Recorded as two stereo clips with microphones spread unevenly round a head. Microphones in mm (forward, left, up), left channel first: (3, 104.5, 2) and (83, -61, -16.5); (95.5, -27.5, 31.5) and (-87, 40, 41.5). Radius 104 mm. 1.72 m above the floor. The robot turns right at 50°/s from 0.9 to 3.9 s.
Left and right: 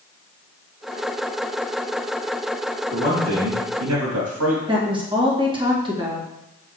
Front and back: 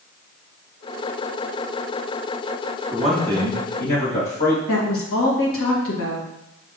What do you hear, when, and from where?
2.9 s a man speaking: 120° right, 2.5 m; by 4.6 s 70° right, 2.5 m
4.7 s a woman speaking: 5° left, 2.0 m